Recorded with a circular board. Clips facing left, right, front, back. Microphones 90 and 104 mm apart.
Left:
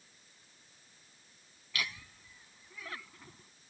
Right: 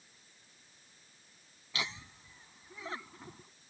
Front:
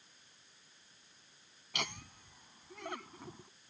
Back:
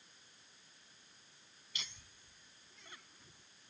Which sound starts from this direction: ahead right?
Laughter, at 1.7 s.